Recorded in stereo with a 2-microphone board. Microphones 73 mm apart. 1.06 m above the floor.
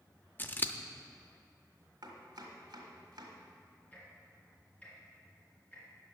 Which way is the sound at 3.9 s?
20° left (ahead or behind).